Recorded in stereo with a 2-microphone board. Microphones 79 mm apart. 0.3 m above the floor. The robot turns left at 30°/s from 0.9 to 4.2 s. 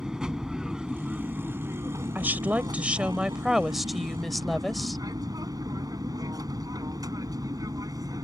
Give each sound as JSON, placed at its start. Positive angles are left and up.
{"t": 0.0, "sound": "an aircraft", "side_deg": -10}
{"t": 2.1, "sound": "a woman speaking", "side_deg": -25}